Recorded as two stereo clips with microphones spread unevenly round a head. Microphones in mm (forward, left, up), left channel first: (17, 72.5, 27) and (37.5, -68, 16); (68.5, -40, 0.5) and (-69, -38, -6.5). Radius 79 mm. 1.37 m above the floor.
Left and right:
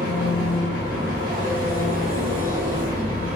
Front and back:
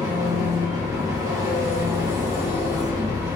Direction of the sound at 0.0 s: 115° right.